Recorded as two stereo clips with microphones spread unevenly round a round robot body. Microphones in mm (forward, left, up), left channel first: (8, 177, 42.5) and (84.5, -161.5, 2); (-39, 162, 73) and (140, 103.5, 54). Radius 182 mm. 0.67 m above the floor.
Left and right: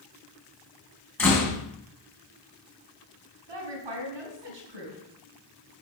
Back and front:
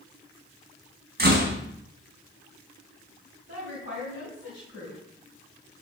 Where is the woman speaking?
80° right, 4.5 m.